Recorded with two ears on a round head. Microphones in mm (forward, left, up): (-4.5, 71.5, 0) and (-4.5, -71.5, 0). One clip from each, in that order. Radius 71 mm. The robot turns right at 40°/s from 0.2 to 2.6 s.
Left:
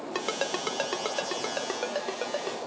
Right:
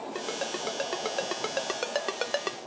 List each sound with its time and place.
0.1 s a ringtone: 35° left (ahead or behind), 0.5 m; by 2.6 s 60° right (ahead or behind), 0.5 m